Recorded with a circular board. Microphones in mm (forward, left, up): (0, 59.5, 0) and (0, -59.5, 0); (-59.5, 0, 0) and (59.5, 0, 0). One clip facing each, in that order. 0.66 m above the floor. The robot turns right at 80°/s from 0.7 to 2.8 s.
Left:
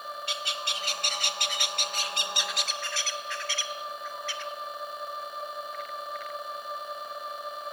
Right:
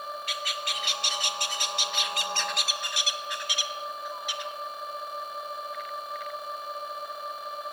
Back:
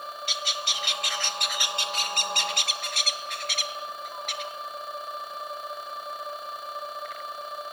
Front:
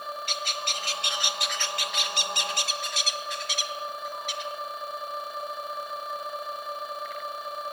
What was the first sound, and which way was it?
A bird, 30° left.